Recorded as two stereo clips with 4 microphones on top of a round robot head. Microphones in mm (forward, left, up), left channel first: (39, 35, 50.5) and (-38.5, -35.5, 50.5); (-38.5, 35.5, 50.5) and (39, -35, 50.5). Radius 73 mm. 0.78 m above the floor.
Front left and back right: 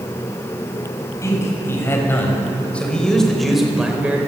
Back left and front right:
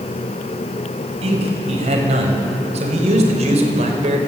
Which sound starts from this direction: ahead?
A man speaking, at 1.2 s.